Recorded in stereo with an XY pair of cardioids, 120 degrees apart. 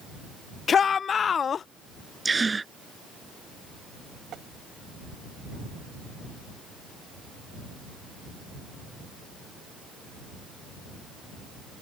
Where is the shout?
40° left.